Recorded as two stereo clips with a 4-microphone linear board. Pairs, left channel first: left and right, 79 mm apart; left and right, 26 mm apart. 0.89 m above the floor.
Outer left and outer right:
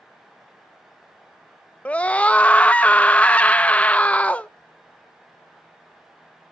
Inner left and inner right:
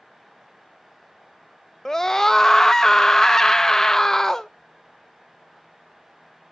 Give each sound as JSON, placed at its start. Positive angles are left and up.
{"t": 1.9, "sound": "a scream", "side_deg": 15, "distance_m": 0.6}